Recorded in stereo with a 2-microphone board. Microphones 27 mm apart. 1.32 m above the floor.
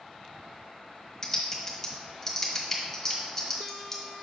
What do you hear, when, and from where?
1.2 s typing on a keyboard: 15° left (ahead or behind), 1.4 m